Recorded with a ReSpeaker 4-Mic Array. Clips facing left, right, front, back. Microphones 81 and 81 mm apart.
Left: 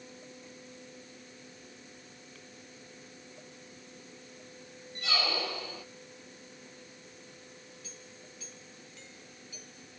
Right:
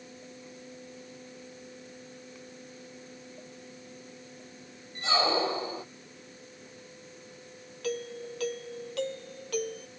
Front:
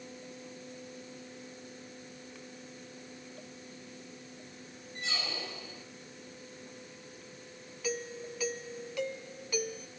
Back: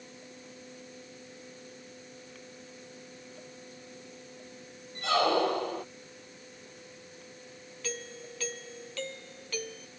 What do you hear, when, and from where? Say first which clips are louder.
5.0 s a squeak: right 7 dB, back 15 dB; 150° right
7.8 s a doorbell: right 18 dB, front 4 dB; 80° right